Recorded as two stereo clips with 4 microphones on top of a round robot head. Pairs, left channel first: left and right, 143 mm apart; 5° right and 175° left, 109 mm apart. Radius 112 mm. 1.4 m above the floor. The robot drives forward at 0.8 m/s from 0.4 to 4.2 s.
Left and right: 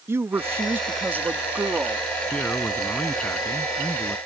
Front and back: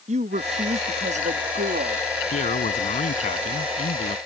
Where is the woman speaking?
165° right; by 2.0 s 170° right.